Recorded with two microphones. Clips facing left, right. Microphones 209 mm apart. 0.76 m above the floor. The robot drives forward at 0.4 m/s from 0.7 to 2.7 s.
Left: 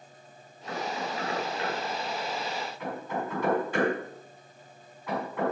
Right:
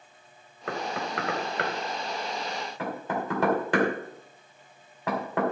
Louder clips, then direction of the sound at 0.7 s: Right 1 dB; 75° right (ahead or behind).